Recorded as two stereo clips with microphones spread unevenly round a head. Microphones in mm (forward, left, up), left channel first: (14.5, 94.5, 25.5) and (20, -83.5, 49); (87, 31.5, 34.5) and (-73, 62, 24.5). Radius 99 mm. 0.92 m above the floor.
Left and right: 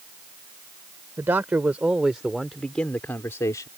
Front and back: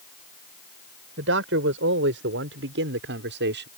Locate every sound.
1.2 s a man speaking: 165° right; by 3.7 s 165° left